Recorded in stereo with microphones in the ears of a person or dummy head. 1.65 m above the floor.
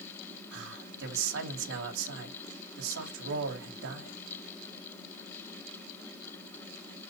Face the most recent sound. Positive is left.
turn(degrees=-65)  # may be behind; listen again after turning